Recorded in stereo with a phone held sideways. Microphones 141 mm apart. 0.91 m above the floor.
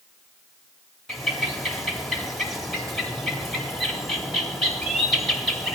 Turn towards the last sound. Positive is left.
turn(degrees=0)  # may be behind; listen again after turning